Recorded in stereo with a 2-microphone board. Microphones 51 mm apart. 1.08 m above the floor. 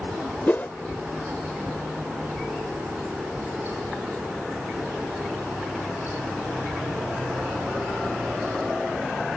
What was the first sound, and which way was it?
A whoosh, 35° left (ahead or behind).